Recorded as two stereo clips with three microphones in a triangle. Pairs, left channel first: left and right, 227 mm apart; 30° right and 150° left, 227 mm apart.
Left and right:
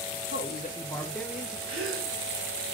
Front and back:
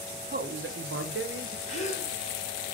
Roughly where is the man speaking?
Left.